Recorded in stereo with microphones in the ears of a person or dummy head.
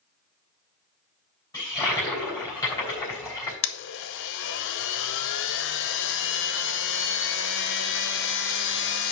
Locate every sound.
1.5 s a toilet flushing: 20° left (ahead or behind), 3.5 m
3.6 s a blender: 60° left (ahead or behind), 0.7 m